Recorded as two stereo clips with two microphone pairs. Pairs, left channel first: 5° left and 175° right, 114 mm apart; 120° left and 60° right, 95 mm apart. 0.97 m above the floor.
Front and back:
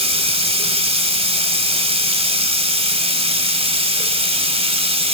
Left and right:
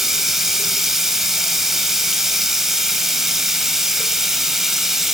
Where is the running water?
145° right, 1.6 m.